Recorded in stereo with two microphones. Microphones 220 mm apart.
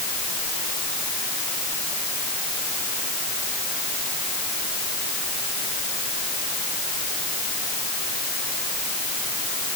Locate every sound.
Only background noise.